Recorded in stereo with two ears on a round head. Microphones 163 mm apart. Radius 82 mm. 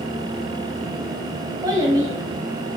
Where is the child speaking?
25° right (ahead or behind), 1.3 m.